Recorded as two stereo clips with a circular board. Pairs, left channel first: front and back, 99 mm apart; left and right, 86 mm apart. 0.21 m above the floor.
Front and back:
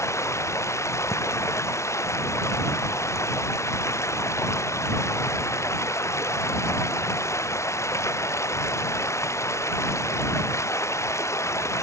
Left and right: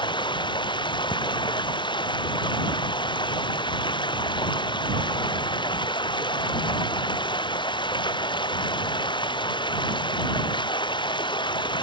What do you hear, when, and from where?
0.0 s running water: 60° left